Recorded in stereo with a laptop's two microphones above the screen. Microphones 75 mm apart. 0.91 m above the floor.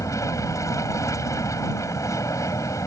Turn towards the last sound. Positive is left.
turn(degrees=45)  # may be behind; listen again after turning